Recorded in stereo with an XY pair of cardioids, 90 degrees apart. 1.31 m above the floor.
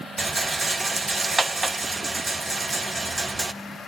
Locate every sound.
0.2 s a rattle: 25° right, 0.8 m